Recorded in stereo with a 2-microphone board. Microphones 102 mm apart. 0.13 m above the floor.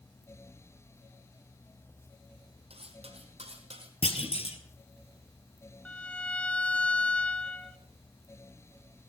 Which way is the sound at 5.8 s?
10° left (ahead or behind).